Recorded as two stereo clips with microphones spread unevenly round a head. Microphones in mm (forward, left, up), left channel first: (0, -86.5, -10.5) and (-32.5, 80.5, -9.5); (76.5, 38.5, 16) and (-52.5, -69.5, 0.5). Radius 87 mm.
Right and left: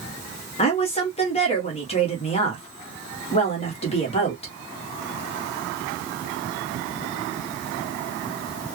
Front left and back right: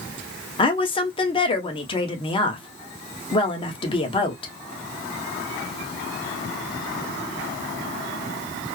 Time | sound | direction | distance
0.6 | a woman speaking | 20° right | 1.2 m